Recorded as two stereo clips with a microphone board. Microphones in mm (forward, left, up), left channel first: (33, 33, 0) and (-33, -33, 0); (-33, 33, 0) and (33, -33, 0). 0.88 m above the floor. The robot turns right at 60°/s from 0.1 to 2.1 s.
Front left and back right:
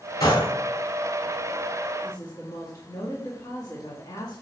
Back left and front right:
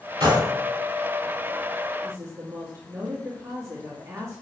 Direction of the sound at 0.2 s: 5° right.